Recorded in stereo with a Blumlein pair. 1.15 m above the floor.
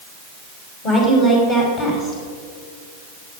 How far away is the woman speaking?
About 5.5 m.